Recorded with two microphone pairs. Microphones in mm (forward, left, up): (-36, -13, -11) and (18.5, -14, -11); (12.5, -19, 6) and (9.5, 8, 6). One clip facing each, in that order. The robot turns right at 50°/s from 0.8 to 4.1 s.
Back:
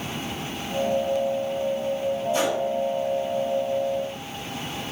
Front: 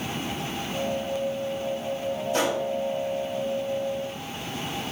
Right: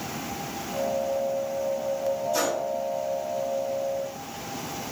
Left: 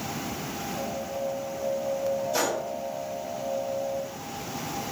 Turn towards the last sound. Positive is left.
turn(degrees=115)